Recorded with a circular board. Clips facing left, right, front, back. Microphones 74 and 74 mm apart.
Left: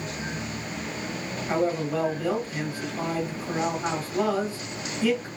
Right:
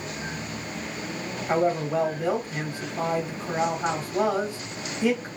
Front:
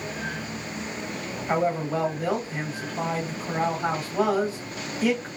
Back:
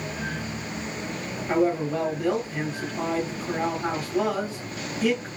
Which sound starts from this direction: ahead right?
A man speaking, at 1.5 s.